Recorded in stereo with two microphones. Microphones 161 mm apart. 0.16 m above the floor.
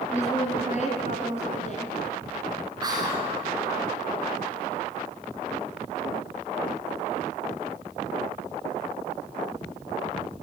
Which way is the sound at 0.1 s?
50° left (ahead or behind).